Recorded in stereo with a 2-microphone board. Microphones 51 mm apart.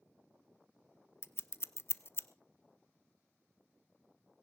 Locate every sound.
1.2 s scissors: 55° left (ahead or behind), 0.5 m